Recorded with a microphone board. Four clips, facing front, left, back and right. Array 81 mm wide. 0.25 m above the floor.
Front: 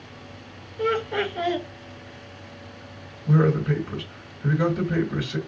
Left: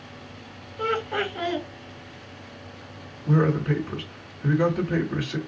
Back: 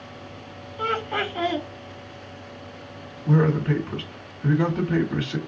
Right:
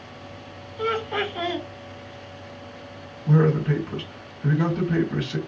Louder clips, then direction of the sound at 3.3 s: Right 2 dB, even; 165° right.